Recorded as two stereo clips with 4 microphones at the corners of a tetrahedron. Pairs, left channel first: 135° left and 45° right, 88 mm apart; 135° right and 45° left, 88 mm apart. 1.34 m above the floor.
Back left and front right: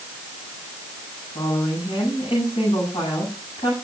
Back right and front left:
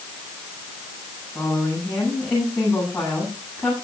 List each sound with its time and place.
1.4 s a woman speaking: 135° left, 9.5 m